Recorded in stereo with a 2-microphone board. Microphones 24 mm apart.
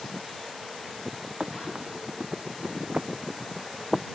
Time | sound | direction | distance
1.4 | running footsteps | 60° right (ahead or behind) | ?